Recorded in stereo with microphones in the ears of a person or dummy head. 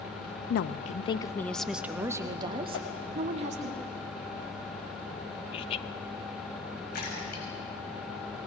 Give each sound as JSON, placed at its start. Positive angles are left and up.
{"t": 0.5, "sound": "a woman speaking", "side_deg": 60, "distance_m": 0.7}
{"t": 2.7, "sound": "a whoosh", "side_deg": 80, "distance_m": 2.0}
{"t": 5.5, "sound": "laughter", "side_deg": 35, "distance_m": 1.0}
{"t": 6.9, "sound": "a splash", "side_deg": 55, "distance_m": 5.5}